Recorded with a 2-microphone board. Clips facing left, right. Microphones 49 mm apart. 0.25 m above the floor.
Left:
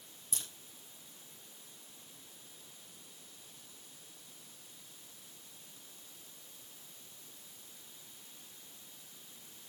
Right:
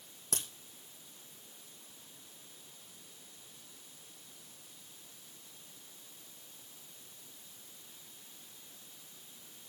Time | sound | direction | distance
0.3 | a crack | 75° right (ahead or behind) | 6 m